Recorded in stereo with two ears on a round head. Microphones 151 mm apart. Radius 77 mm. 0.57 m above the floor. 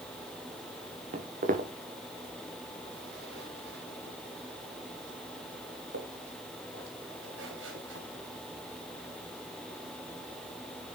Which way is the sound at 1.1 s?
45° right (ahead or behind).